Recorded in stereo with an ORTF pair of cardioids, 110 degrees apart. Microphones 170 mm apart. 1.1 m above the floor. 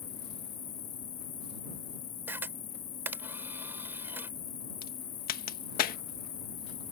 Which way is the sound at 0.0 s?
45° left.